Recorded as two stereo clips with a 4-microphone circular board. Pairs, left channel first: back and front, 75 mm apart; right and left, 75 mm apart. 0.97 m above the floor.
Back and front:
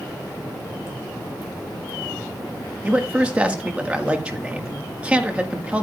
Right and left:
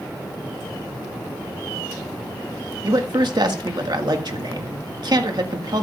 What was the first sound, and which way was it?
A man speaking, 70° left.